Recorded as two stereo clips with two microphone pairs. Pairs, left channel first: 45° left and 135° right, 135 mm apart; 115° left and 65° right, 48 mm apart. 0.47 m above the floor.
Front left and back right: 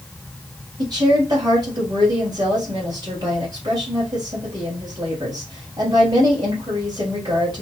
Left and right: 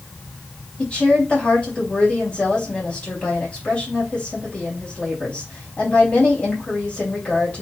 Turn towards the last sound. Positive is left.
turn(degrees=175)